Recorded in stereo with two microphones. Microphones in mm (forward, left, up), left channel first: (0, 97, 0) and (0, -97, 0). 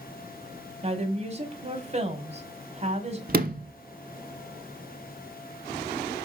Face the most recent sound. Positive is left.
turn(degrees=-55)  # may be behind; listen again after turning